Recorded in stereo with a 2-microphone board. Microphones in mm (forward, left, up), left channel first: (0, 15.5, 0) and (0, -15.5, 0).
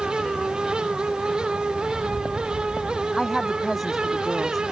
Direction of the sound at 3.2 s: Centre (ahead or behind).